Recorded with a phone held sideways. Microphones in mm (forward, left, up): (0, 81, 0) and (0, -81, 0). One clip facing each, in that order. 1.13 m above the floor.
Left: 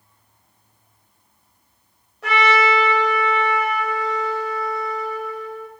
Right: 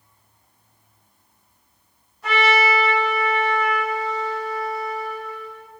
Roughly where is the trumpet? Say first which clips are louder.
Left 1 dB; left.